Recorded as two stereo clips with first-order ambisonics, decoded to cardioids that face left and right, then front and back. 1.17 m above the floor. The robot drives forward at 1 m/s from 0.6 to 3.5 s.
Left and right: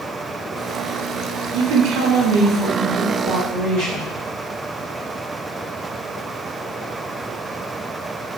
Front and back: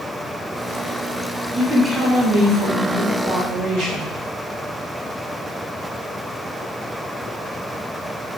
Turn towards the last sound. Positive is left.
turn(degrees=-145)